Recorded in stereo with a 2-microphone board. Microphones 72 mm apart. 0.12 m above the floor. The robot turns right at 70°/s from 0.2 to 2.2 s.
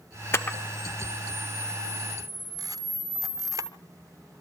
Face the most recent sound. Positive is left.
turn(degrees=-60)  # may be behind; listen again after turning